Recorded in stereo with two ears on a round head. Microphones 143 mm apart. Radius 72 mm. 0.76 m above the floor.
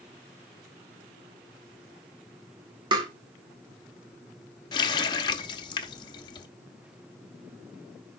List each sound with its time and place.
2.9 s tapping: 30° right (ahead or behind), 2.5 m
4.7 s a running tap: 30° left (ahead or behind), 0.8 m